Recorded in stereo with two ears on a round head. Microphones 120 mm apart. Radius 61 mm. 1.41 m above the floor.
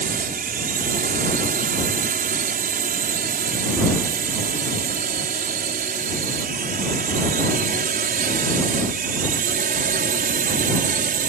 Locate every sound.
0.0 s a drone: 60° right (ahead or behind); by 11.3 s 65° right (ahead or behind)